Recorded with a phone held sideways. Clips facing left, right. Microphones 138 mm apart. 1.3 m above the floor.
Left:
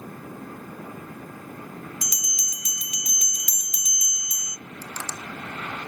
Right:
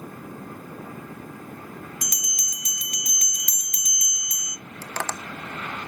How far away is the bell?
About 0.5 m.